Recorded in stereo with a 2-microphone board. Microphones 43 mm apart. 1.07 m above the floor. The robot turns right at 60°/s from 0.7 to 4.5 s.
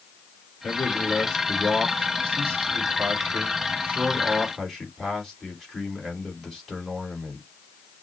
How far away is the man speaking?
About 3.5 m.